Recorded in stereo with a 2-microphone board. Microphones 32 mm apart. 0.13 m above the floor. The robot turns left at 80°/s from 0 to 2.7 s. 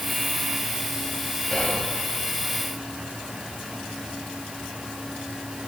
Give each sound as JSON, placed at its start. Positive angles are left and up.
{"t": 1.5, "sound": "whispering", "side_deg": 40, "distance_m": 2.5}